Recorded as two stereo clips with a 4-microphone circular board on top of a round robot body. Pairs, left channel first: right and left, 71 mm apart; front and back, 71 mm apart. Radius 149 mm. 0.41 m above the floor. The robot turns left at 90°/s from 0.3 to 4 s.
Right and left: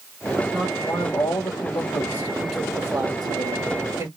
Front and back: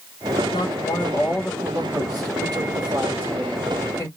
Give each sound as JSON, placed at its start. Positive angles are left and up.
{"t": 0.5, "sound": "a man speaking", "azimuth_deg": 10, "distance_m": 2.5}